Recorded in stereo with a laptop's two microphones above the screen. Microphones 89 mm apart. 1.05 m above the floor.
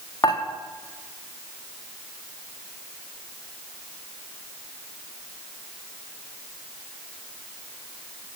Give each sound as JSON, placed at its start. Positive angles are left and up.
{"t": 0.2, "sound": "dishes clattering", "side_deg": 55, "distance_m": 1.0}